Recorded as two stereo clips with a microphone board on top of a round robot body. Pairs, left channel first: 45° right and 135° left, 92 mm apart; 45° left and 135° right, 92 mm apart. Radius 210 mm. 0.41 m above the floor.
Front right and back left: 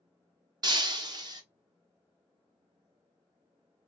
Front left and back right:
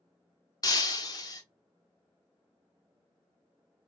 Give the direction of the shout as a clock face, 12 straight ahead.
No shout in this recording.